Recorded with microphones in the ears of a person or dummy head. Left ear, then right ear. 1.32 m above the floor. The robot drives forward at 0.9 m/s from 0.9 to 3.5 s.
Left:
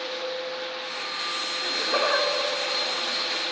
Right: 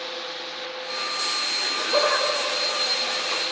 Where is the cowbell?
No cowbell in this recording.